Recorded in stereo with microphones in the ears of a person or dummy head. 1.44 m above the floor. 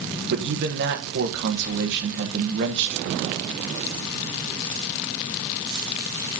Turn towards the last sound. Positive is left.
turn(degrees=-60)  # may be behind; listen again after turning